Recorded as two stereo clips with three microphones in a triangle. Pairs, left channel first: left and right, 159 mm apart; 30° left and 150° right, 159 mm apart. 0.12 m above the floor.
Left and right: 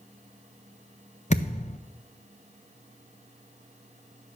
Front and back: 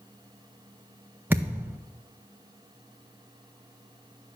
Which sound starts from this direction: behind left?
A thud, at 1.3 s.